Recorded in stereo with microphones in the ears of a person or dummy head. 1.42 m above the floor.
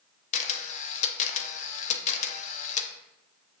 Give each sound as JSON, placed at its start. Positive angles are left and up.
{"t": 0.3, "sound": "a camera shutter", "side_deg": 40, "distance_m": 0.7}